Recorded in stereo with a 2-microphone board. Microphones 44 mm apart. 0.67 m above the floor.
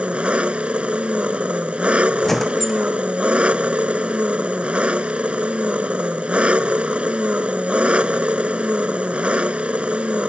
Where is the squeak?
10° left (ahead or behind).